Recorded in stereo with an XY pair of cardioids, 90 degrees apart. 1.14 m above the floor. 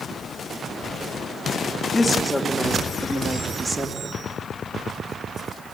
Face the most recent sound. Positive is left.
turn(degrees=-40)